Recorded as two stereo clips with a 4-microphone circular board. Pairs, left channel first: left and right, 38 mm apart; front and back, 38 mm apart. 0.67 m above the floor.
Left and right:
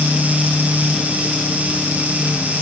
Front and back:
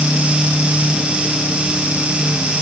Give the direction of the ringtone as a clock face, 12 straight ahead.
I don't hear a ringtone.